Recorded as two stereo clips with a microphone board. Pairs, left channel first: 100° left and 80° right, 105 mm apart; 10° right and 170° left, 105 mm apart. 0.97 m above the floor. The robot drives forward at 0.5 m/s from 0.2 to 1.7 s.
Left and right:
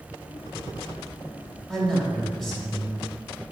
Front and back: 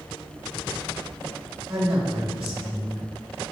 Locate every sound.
1.7 s a man speaking: 175° right, 2 m